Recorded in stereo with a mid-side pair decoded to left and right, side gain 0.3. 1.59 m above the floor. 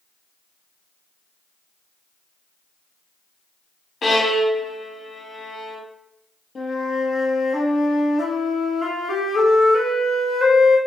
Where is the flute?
65° left, 1.0 m.